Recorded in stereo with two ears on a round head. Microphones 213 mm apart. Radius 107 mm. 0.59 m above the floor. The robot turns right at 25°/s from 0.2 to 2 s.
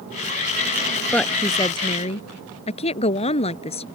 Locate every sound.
1.1 s a woman speaking: 5° left (ahead or behind); by 3.9 s 25° left (ahead or behind)